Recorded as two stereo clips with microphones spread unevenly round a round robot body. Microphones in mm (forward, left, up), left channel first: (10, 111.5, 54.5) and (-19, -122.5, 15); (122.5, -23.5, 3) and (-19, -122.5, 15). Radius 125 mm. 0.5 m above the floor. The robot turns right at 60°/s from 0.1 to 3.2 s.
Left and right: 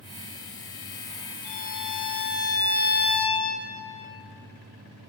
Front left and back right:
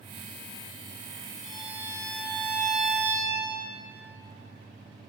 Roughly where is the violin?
Ahead left.